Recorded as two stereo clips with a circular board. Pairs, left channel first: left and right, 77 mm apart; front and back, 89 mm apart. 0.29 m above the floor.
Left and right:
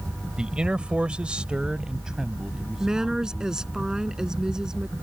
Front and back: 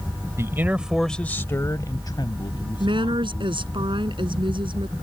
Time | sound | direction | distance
0.4 | a man speaking | 160° right | ?
2.8 | a woman speaking | 170° right | ?